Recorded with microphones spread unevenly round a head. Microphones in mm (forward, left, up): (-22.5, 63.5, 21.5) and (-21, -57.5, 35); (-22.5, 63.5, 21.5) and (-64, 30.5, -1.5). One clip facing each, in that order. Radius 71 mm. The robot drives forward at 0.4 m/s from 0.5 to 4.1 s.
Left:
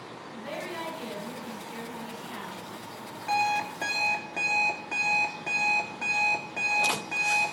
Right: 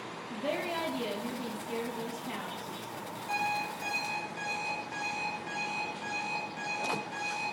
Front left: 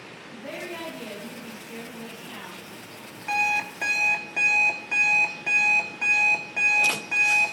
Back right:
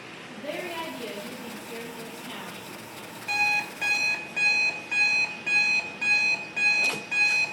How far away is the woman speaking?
About 4 m.